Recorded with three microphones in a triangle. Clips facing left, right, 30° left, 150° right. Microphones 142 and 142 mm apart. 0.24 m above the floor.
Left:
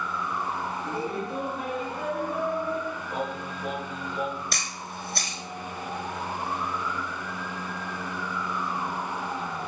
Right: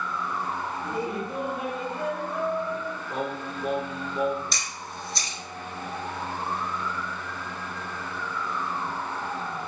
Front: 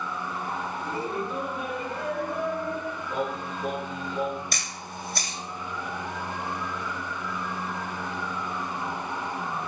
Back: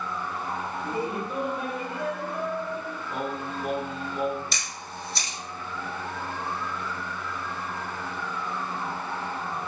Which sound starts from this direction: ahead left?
A camera shutter, at 4.5 s.